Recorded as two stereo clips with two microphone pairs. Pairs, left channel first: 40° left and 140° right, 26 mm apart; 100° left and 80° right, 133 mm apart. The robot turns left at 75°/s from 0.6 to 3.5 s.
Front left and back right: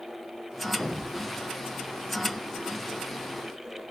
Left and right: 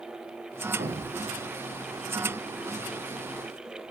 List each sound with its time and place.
0.8 s an explosion: 70° right, 5 m; by 1.5 s 125° right, 5 m